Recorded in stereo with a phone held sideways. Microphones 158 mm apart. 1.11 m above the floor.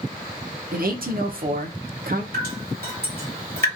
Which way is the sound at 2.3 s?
75° right (ahead or behind).